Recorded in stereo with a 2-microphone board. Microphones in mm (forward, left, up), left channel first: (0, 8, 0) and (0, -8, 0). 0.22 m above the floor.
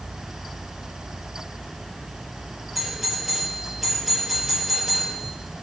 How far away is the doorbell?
About 7.5 m.